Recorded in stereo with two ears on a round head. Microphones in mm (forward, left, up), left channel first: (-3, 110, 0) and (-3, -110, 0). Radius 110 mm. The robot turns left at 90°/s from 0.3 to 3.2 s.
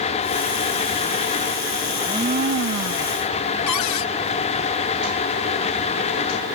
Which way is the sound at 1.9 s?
Straight ahead.